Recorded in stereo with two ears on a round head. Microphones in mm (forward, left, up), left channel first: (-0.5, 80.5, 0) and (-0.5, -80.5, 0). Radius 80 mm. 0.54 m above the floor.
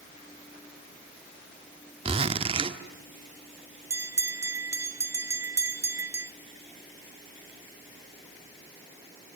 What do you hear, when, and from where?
2.0 s a zipper: 30° right (ahead or behind), 1.5 m
3.9 s a bell: 15° right (ahead or behind), 1.0 m